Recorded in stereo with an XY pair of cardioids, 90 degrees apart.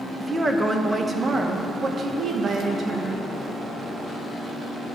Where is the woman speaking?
15° right, 1.8 m; by 3.3 s 75° right, 2 m.